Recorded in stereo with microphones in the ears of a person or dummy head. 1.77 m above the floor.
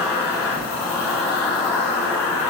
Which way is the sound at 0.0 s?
Centre (ahead or behind).